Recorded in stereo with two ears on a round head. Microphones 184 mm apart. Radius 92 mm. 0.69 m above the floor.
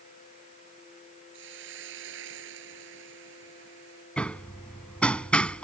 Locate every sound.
1.3 s a hiss: 65° right (ahead or behind)
4.2 s hammering: 5° left (ahead or behind)